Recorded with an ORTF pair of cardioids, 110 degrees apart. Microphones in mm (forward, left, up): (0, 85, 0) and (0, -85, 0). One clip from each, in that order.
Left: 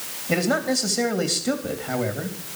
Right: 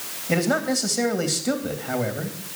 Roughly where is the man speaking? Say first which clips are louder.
Even; ahead.